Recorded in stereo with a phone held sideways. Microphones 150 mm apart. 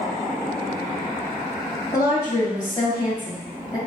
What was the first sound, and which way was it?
A woman speaking, 20° left (ahead or behind).